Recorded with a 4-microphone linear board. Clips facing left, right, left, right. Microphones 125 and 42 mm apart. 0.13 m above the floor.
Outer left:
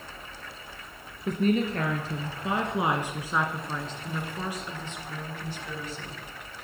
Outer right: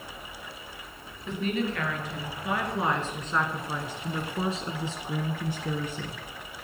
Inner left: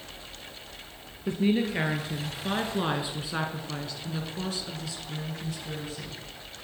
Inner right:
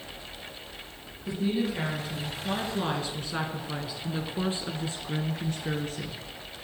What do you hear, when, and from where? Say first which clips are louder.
1.3 s a woman speaking: outer left 4 dB, inner left 3 dB; 40° left (ahead or behind), 2 m; by 6.2 s 55° right (ahead or behind), 2.0 m